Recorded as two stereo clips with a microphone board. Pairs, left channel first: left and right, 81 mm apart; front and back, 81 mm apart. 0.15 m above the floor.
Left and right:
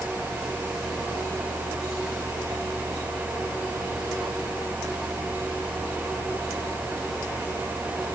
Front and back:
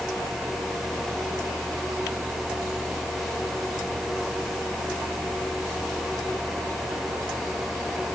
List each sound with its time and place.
Only background noise.